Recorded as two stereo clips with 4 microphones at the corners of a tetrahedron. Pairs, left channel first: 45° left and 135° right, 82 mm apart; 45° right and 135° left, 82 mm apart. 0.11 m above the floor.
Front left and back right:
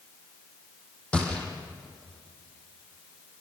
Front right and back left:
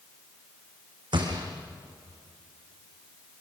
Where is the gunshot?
120° left, 4.5 m.